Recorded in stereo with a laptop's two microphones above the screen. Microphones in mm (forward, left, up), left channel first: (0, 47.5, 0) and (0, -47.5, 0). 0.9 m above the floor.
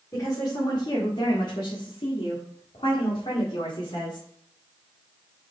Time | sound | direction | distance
0.1 | a woman speaking | 35° left (ahead or behind) | 2 m